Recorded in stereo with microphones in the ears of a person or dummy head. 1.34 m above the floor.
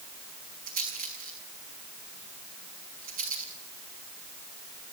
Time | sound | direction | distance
0.7 | a rattle | 45° right (ahead or behind) | 6.5 m